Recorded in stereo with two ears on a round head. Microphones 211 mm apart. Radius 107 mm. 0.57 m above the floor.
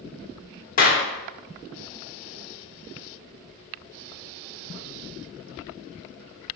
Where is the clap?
35° left (ahead or behind), 1.2 m.